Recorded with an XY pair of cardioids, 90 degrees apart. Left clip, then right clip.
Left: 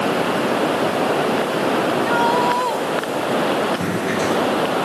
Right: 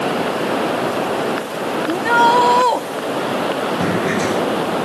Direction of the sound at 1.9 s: 60° right.